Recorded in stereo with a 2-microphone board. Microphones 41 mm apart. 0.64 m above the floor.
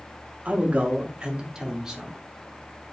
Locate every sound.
0.5 s a man speaking: 40° right (ahead or behind), 0.9 m; by 2.2 s 10° right (ahead or behind), 1.4 m